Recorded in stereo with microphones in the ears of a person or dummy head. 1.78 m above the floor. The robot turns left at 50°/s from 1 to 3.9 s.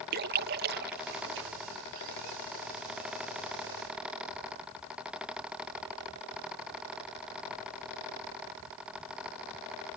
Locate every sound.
0.1 s a splash: 55° right (ahead or behind); by 1.5 s 75° right (ahead or behind)